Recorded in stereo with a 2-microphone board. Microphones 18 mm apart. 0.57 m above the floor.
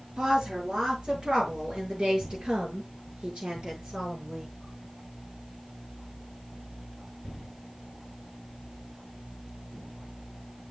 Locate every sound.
0.2 s a woman speaking: 60° right (ahead or behind), 7.5 m; by 4.5 s 80° right, 7.5 m